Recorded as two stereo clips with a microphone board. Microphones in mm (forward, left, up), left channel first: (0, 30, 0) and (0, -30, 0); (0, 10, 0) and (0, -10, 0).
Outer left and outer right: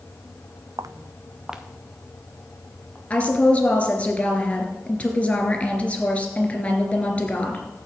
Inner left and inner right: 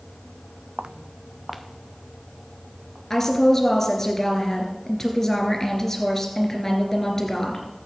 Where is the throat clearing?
I don't hear throat clearing.